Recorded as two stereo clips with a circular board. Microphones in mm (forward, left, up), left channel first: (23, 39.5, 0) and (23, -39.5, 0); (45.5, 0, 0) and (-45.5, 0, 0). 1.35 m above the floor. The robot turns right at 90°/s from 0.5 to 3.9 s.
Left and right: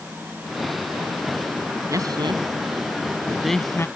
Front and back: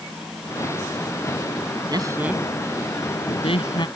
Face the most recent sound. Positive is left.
turn(degrees=40)